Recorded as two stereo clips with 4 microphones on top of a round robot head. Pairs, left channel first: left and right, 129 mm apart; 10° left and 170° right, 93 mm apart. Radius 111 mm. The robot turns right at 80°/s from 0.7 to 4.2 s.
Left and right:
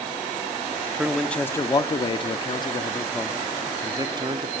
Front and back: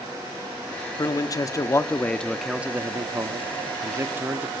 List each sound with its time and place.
1.0 s a man speaking: 15° right, 0.9 m; by 4.5 s 115° right, 0.9 m